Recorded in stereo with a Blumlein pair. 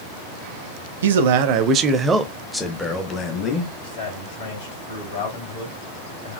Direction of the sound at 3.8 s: 50° left.